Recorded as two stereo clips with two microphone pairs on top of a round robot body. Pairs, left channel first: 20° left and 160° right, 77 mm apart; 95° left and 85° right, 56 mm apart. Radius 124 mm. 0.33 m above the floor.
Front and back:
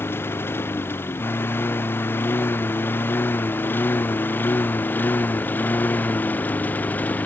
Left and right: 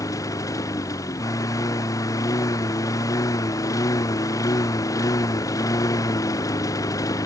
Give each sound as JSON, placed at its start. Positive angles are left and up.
{"t": 0.0, "sound": "a lawn mower", "azimuth_deg": 80}